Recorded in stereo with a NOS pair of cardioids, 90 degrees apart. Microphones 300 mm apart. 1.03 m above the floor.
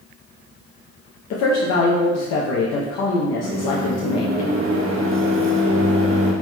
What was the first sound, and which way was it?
A woman speaking, 70° left.